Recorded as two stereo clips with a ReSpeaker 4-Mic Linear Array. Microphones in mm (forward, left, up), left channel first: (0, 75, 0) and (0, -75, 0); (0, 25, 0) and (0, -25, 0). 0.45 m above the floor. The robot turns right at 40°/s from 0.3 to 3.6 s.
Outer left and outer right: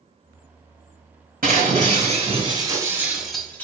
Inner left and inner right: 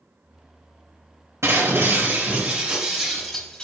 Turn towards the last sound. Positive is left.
turn(degrees=10)